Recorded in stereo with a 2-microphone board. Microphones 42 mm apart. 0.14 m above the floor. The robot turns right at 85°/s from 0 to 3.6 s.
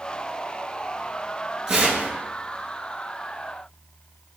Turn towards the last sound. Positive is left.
turn(degrees=0)